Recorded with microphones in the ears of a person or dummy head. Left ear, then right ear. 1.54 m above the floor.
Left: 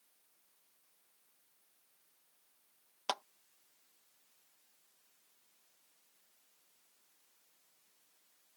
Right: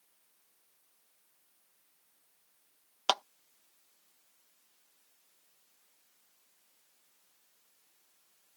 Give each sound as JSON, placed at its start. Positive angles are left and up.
{"t": 3.1, "sound": "a clap", "side_deg": -35}